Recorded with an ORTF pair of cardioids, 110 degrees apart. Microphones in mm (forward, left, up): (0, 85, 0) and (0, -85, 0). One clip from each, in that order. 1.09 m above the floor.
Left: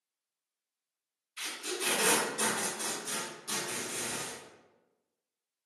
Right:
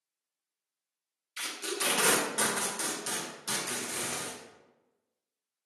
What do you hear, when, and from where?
1.4 s tape being pulled: 60° right, 0.8 m